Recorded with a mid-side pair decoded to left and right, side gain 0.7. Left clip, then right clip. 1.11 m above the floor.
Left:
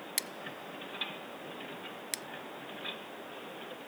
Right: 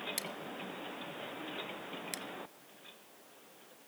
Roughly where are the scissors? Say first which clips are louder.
Left 2 dB; ahead left.